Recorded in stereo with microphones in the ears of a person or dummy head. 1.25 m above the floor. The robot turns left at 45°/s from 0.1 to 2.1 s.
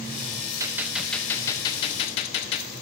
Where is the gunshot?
165° right, 0.6 m; by 2.7 s 130° left, 0.6 m.